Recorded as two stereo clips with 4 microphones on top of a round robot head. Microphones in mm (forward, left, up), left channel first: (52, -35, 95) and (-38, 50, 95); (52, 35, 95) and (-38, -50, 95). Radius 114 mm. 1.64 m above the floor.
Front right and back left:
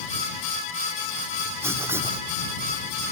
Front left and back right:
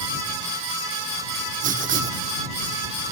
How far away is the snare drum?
I don't hear a snare drum.